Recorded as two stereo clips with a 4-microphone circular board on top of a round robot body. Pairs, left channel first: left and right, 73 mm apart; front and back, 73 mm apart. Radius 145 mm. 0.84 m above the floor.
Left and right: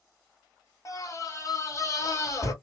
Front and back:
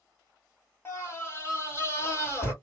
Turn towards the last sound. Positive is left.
turn(degrees=50)